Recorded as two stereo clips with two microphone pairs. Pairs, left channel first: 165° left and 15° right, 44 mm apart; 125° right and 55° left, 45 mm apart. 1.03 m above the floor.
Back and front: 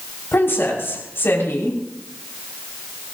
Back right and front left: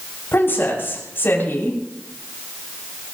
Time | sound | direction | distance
0.3 | a woman speaking | 165° right | 6 m